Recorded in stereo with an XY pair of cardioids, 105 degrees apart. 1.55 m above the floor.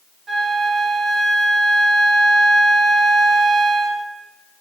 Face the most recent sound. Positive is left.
turn(degrees=-40)